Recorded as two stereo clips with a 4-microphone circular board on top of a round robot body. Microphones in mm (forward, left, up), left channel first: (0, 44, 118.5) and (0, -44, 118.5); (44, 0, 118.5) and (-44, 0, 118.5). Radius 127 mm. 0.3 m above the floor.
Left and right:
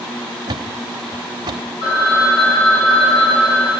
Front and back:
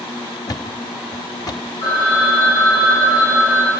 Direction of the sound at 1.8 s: 60° left.